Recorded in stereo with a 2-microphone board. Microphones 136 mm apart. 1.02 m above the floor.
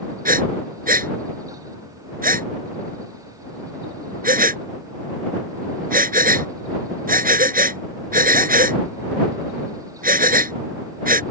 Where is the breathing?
80° right.